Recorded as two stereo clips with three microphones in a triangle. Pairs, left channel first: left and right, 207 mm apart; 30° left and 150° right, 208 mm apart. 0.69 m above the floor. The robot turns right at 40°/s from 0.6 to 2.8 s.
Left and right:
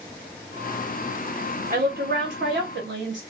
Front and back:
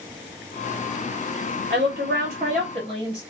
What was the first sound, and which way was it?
A woman speaking, 125° right.